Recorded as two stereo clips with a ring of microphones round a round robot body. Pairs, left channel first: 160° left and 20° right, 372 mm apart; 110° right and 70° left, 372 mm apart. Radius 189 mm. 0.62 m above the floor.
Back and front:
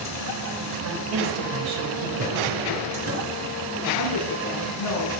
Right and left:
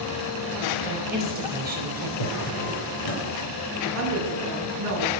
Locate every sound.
0.8 s a woman speaking: straight ahead, 3 m
2.2 s a drawer: 80° right, 5 m
4.0 s a woman speaking: 115° left, 7 m